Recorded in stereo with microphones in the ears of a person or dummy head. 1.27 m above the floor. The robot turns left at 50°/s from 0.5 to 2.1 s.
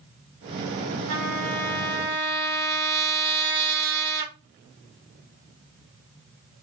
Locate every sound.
1.1 s a trumpet: 85° right, 2.5 m; by 4.3 s 135° right, 2.5 m